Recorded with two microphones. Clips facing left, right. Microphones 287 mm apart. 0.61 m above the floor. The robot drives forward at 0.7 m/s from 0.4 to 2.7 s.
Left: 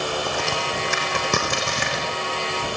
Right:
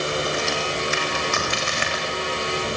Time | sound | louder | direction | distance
0.3 | a crack | right 1 dB | 60° left (ahead or behind) | 7.5 m